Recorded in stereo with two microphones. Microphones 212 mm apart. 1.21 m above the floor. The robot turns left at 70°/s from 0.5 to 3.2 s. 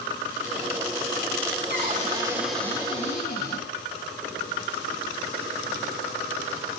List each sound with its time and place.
1.7 s a cupboard door: 120° right, 3 m; by 3.7 s 130° left, 3 m